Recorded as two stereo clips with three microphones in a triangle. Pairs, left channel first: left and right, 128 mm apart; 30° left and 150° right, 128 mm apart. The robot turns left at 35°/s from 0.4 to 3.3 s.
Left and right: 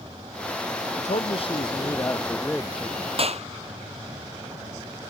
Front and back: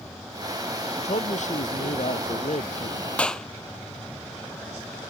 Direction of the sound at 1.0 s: 65° left.